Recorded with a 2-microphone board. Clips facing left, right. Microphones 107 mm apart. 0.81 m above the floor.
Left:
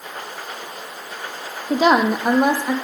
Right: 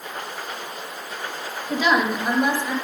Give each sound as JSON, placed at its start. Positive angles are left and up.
{"t": 1.7, "sound": "a woman speaking", "side_deg": 40, "distance_m": 0.5}